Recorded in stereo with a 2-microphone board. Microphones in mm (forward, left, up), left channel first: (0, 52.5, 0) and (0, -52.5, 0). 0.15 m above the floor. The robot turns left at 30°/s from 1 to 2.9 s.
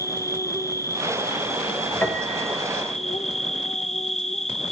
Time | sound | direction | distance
0.0 | an insect | 150° left | 1.4 m
2.0 | a piano | 20° left (ahead or behind) | 4 m